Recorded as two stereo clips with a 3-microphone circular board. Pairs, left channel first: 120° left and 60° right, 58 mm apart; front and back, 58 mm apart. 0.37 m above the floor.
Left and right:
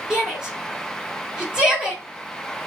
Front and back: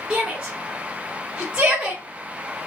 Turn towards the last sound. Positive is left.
turn(degrees=-120)